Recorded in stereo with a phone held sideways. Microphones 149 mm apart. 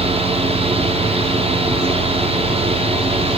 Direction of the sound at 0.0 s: 40° right (ahead or behind).